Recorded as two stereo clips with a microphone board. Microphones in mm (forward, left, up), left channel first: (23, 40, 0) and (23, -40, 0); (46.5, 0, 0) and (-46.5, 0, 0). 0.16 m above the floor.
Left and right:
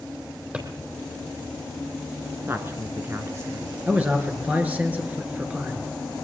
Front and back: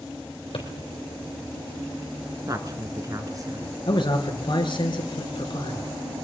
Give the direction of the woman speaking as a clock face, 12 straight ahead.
5 o'clock.